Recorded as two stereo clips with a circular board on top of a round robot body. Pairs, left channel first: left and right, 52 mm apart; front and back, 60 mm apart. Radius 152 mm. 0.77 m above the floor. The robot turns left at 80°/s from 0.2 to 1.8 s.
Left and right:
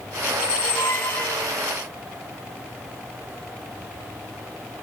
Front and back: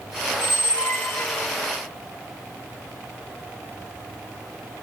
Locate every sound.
0.3 s a squeak: 110° left, 1.8 m; by 1.5 s 20° left, 1.8 m